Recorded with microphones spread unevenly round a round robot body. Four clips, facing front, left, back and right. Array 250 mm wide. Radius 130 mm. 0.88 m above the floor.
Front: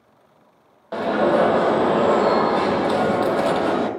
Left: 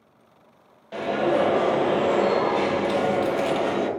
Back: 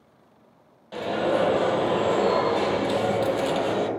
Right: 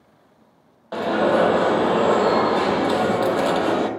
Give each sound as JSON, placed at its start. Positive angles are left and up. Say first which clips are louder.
{"t": 0.9, "sound": "an alarm", "louder": "right 4 dB, front 6 dB", "azimuth_deg": -35, "distance_m": 0.9}